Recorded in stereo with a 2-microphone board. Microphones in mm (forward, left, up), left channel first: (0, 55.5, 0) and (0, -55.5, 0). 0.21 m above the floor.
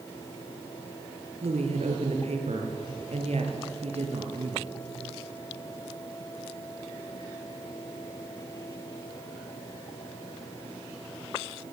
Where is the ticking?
No ticking in this recording.